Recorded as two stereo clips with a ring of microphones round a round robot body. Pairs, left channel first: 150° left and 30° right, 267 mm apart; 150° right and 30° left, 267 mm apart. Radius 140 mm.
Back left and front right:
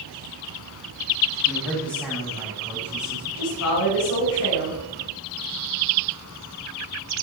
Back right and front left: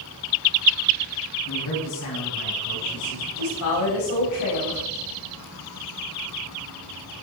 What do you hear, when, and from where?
1.4 s a man speaking: 115° right, 6.5 m
3.4 s a woman speaking: 175° right, 4.5 m